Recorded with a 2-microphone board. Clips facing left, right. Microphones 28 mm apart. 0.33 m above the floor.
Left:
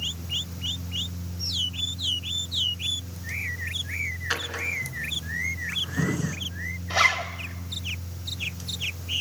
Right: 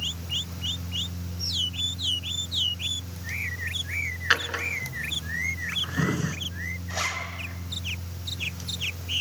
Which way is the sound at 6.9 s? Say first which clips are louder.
Left 9 dB; 40° left (ahead or behind).